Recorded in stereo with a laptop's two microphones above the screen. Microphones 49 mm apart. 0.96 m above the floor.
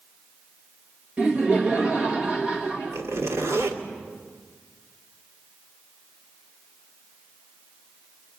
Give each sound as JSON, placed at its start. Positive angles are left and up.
{"t": 1.2, "sound": "laughter", "side_deg": -25, "distance_m": 1.6}
{"t": 2.9, "sound": "a zipper", "side_deg": -65, "distance_m": 2.0}